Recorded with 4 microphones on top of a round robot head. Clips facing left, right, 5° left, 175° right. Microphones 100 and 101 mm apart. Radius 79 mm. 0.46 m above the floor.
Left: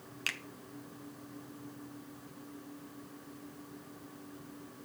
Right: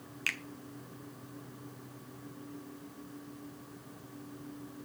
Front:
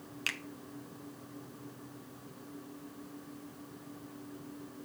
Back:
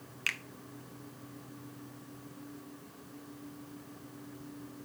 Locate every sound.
0.3 s a finger snap: 45° left, 0.9 m